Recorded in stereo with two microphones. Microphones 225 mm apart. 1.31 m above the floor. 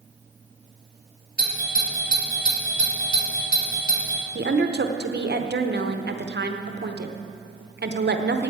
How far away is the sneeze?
I don't hear a sneeze.